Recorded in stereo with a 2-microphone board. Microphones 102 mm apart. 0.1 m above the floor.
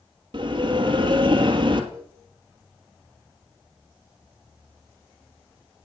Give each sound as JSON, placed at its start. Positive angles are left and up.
{"t": 0.3, "sound": "a bell", "side_deg": -55, "distance_m": 2.0}
{"t": 1.9, "sound": "a cowbell", "side_deg": -45, "distance_m": 6.5}